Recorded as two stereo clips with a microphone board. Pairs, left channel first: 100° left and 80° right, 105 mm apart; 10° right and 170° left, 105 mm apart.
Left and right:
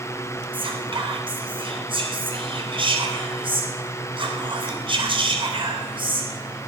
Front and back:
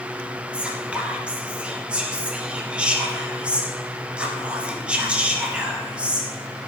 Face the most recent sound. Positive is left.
turn(degrees=-110)